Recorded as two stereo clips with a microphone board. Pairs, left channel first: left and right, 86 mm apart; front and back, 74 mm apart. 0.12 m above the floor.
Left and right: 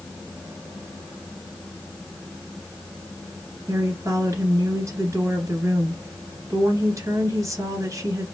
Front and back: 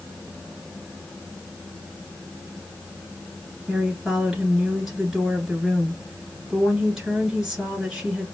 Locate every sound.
3.7 s a woman speaking: 100° right, 1.7 m